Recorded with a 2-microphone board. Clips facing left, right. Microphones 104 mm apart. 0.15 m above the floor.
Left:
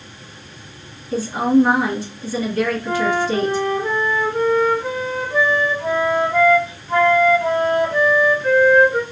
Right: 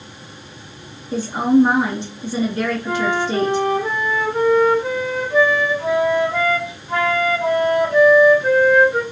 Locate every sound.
1.1 s a woman speaking: 20° right (ahead or behind), 2.0 m
2.9 s a flute: 15° right (ahead or behind), 1.0 m